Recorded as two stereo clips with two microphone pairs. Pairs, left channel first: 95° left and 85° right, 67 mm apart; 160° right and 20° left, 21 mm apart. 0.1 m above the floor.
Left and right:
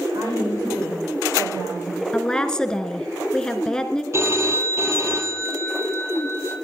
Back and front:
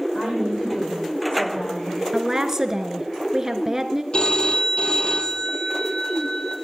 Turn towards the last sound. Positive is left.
turn(degrees=-130)